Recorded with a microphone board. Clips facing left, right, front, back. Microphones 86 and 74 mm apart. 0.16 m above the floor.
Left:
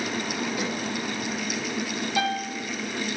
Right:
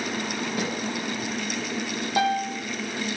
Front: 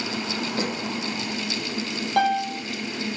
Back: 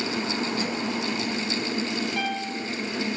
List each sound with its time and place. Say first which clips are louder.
0.6 s a snare drum: right 1 dB, front 1 dB; 45° right, 2.5 m
2.2 s a piano: right 4 dB, front 7 dB; 35° right, 1.1 m